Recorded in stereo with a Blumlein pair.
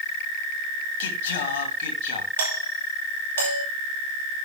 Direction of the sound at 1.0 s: 55° left.